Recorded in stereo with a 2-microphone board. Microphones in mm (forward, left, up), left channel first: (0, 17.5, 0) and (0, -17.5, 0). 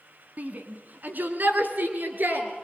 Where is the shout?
55° right (ahead or behind), 2.5 m; by 2.5 s 65° right (ahead or behind), 5 m.